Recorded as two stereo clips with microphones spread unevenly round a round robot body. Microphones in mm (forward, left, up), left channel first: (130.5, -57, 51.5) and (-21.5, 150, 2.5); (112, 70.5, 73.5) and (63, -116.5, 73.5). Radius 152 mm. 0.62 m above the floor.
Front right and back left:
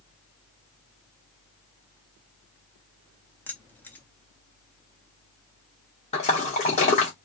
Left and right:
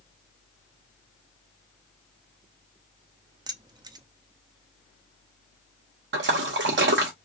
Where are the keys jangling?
150° right, 0.5 m.